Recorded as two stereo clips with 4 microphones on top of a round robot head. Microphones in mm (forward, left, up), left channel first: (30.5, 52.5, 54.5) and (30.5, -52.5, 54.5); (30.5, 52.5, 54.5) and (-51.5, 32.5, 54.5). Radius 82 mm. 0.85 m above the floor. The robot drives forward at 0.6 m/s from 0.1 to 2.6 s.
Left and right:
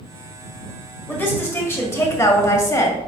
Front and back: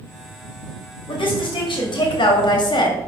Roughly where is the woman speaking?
Ahead left.